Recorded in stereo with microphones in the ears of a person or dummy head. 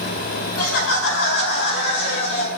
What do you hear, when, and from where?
0.6 s laughter: 75° left (ahead or behind), 5.5 m; by 2.5 s 55° left (ahead or behind), 5.5 m